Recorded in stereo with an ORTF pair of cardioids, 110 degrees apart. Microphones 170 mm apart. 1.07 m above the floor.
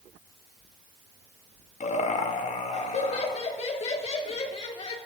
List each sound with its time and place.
1.8 s laughter: 45° left, 2.0 m; by 5.0 s 35° left, 3.5 m